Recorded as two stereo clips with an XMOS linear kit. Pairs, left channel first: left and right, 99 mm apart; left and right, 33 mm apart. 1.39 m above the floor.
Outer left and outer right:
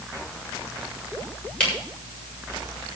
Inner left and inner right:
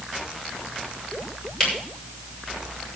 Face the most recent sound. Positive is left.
turn(degrees=10)  # may be behind; listen again after turning